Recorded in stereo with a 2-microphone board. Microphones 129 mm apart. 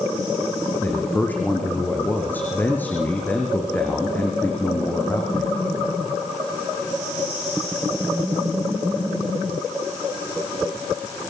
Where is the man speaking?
15° left (ahead or behind), 5 m.